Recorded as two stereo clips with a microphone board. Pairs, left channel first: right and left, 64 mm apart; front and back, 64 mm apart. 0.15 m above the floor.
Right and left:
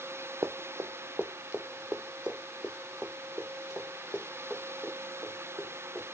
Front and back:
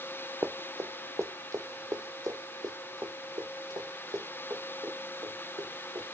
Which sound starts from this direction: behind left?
Running footsteps, at 0.4 s.